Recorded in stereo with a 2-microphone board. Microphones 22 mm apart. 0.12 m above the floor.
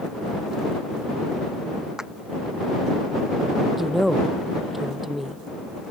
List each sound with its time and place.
2.0 s a clap: 25° right (ahead or behind)
3.8 s a woman speaking: 5° right (ahead or behind)